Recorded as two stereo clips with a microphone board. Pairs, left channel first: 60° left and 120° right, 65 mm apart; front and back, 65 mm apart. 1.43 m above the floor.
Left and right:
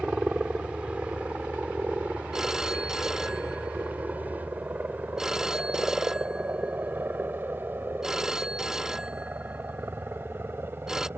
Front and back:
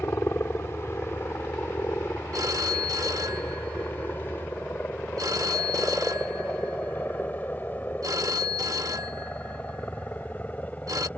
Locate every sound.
0.0 s a helicopter: 45° right; by 11.2 s 65° right
2.3 s a phone ringing: 155° left